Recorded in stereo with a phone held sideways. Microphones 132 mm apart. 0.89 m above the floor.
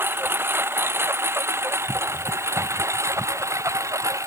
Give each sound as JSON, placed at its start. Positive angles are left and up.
{"t": 0.0, "sound": "a lawn mower", "side_deg": -15}